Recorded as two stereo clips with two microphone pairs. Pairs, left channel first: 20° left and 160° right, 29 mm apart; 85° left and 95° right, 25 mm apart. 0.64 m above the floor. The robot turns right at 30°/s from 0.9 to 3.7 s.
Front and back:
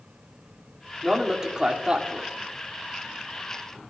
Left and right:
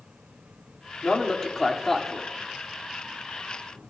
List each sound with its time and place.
1.0 s a man speaking: 125° left, 1.8 m; by 2.3 s 165° left, 1.8 m